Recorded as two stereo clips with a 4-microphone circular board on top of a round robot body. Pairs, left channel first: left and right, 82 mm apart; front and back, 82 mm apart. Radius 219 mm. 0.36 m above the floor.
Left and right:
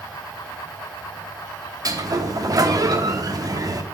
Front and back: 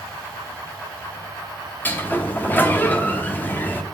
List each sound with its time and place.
1.9 s a sliding door: 65° right, 1.0 m